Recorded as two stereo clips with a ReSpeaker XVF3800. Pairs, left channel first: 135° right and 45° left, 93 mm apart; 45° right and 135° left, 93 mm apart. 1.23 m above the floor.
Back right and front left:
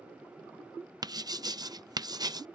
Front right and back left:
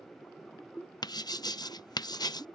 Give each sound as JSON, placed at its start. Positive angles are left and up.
{"t": 1.0, "sound": "writing", "azimuth_deg": 0}